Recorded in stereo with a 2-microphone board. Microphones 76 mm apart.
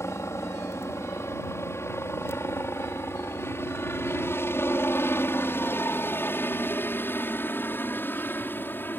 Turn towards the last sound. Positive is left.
turn(degrees=25)  # may be behind; listen again after turning